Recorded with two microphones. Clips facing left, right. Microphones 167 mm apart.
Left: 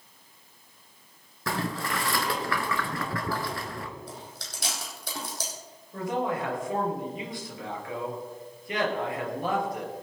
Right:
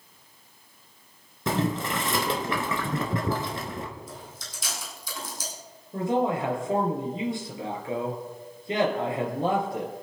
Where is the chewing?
70° left (ahead or behind), 4.5 m.